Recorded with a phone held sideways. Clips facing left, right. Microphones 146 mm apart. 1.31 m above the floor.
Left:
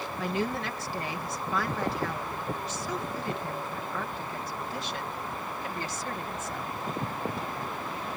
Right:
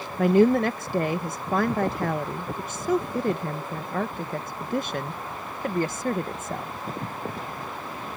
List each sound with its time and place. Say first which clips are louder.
0.2 s a woman speaking: right 13 dB; 50° right (ahead or behind)